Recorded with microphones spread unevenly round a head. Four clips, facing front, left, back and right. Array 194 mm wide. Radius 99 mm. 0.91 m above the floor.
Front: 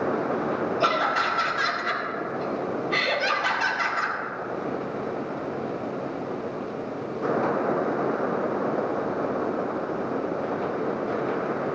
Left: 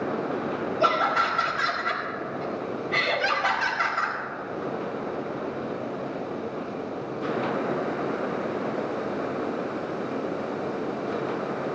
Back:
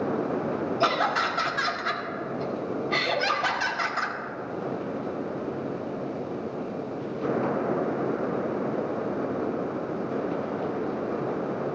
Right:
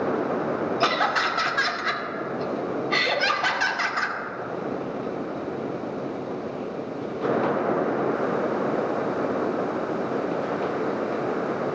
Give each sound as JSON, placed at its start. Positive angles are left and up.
{"t": 0.8, "sound": "laughter", "azimuth_deg": -110, "distance_m": 2.0}